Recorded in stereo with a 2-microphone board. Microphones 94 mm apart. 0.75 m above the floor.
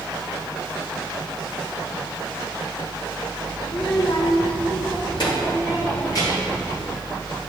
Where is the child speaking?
35° left (ahead or behind), 0.9 m; by 6.6 s 50° left (ahead or behind), 4 m.